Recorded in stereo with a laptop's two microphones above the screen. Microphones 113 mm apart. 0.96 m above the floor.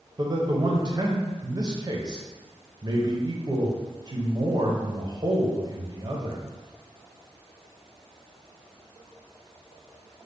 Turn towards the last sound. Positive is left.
turn(degrees=-40)  # may be behind; listen again after turning